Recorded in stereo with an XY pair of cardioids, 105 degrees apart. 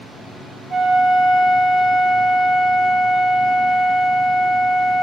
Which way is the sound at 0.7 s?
35° right.